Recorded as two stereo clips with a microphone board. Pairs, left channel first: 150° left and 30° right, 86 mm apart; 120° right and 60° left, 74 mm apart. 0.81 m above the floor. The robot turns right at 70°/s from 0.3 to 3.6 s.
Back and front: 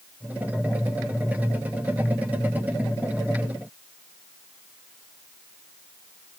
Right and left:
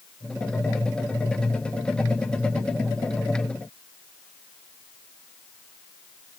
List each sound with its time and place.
Only background noise.